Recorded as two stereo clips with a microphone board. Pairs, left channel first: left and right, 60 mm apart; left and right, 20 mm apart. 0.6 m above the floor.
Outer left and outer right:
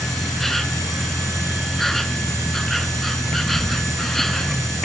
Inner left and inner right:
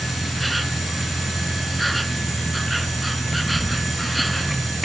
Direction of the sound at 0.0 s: 5° left (ahead or behind).